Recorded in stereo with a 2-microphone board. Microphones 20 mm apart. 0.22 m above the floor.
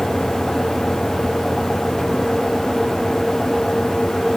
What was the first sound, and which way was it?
Only background noise.